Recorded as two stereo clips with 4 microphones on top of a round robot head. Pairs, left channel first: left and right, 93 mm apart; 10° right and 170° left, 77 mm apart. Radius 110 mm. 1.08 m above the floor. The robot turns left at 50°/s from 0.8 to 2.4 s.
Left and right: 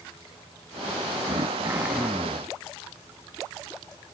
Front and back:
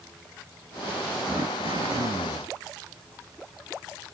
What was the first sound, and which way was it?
Throat clearing, 135° right.